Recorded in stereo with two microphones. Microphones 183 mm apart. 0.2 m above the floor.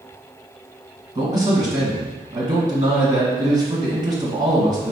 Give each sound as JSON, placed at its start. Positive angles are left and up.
{"t": 1.1, "sound": "a man speaking", "side_deg": -25, "distance_m": 1.6}